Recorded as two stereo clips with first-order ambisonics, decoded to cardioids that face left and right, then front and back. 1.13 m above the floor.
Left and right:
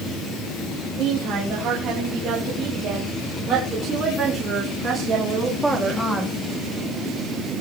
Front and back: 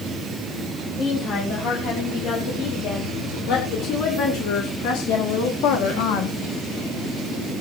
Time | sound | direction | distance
1.0 | a woman speaking | 40° right | 6.5 m